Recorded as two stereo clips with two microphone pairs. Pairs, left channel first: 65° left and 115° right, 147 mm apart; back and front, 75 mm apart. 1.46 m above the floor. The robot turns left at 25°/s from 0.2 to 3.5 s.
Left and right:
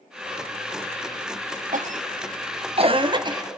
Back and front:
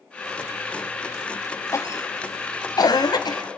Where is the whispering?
I don't hear whispering.